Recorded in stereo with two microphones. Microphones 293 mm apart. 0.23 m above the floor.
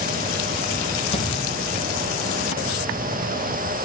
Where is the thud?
20° left (ahead or behind), 2.5 m.